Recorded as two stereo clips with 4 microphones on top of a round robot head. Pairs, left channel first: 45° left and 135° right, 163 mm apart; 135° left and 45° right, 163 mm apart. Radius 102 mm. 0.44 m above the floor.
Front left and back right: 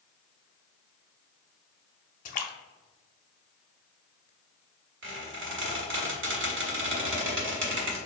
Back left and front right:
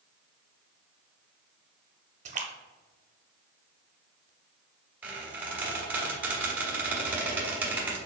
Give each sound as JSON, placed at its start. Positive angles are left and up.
{"t": 2.2, "sound": "a splash", "azimuth_deg": 0, "distance_m": 0.5}
{"t": 5.0, "sound": "a squeak", "azimuth_deg": -130, "distance_m": 1.3}